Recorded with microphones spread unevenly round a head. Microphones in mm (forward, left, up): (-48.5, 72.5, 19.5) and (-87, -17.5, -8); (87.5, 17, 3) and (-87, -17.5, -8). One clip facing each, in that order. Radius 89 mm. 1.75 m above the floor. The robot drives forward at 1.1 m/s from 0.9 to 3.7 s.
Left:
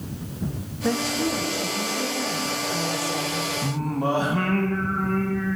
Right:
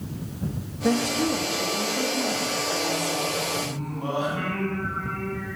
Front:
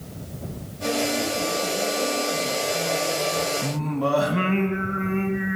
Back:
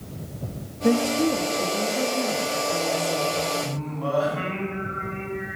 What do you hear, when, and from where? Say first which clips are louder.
0.8 s a woman speaking: right 1 dB, back 5 dB; 170° left, 3.5 m; by 3.5 s 175° left, 6 m
3.6 s singing: left 5 dB, front 4 dB; 20° left, 3.5 m